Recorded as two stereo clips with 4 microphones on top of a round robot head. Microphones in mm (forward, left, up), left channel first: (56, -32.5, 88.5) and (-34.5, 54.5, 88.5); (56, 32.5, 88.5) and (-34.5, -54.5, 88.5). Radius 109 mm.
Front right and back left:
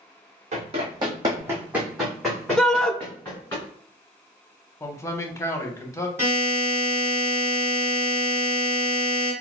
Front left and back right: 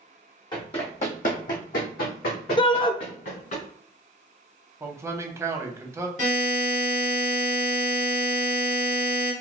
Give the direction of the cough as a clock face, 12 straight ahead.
I don't hear a cough.